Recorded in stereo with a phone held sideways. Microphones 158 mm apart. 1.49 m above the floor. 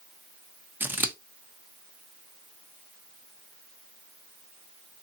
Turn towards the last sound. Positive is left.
turn(degrees=-10)  # may be behind; listen again after turning